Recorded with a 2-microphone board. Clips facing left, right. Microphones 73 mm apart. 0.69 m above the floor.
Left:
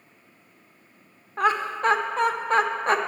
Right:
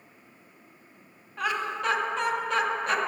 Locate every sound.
1.4 s laughter: 35° left (ahead or behind), 0.7 m